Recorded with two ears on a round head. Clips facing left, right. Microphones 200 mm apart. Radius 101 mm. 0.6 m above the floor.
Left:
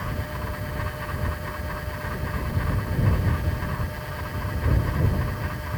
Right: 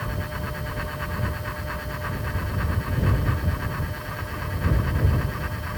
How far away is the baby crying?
I don't hear a baby crying.